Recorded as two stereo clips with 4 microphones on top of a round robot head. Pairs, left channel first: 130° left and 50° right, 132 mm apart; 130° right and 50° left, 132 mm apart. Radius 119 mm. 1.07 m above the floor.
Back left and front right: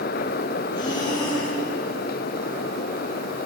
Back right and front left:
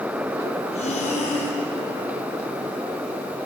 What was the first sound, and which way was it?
Breathing, 170° right.